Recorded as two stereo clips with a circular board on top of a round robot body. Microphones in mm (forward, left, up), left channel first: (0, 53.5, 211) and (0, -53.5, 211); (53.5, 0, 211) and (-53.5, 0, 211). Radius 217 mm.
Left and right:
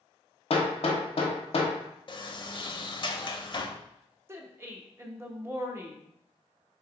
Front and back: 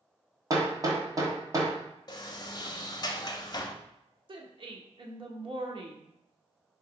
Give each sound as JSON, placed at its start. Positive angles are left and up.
{"t": 0.5, "sound": "hammering", "azimuth_deg": 120, "distance_m": 1.0}
{"t": 2.1, "sound": "a sliding door", "azimuth_deg": 50, "distance_m": 0.7}
{"t": 4.3, "sound": "a woman speaking", "azimuth_deg": -150, "distance_m": 1.2}